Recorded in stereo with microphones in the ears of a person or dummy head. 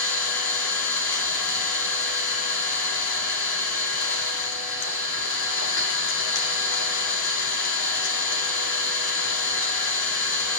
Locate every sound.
0.0 s an engine running: 70° left (ahead or behind), 2.5 m